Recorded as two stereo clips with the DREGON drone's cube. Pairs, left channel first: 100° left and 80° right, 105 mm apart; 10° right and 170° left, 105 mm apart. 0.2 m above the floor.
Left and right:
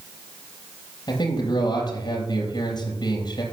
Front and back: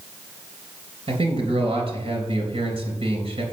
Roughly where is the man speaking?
Behind left.